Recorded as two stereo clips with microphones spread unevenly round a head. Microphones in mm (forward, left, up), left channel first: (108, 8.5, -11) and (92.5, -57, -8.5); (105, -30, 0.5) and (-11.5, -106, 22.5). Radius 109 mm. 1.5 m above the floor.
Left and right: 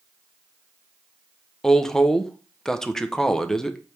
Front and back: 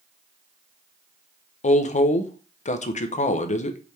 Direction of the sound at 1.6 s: 5° right.